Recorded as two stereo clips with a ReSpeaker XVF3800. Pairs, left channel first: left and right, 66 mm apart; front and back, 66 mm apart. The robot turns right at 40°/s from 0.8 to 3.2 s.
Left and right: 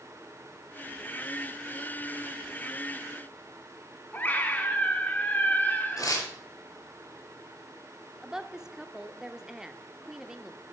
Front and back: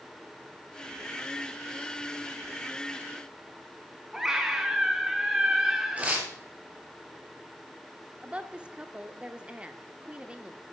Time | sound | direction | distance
4.1 | a scream | 105° left | 1.1 m
6.0 | tearing paper | 110° left | 3.5 m
8.2 | a woman speaking | 150° right | 0.8 m